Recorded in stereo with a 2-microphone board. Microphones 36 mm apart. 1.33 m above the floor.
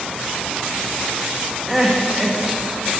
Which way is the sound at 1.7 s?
5° right (ahead or behind).